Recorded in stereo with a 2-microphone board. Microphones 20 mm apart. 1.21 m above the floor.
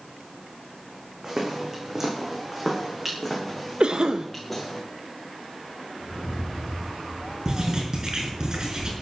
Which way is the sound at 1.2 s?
25° right (ahead or behind).